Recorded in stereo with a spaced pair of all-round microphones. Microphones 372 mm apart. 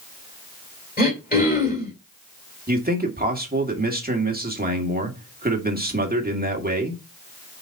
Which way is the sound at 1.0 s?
25° left (ahead or behind).